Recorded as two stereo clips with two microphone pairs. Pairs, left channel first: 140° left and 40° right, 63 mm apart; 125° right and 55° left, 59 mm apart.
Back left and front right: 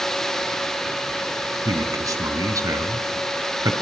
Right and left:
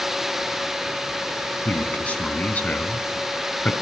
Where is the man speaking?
60° right, 3.5 m.